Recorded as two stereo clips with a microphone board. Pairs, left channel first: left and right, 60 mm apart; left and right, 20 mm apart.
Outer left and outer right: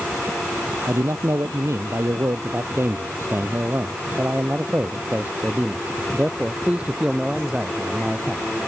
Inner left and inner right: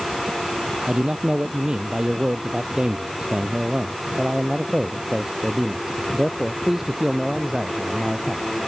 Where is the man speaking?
65° right (ahead or behind); by 8.4 s 10° right (ahead or behind).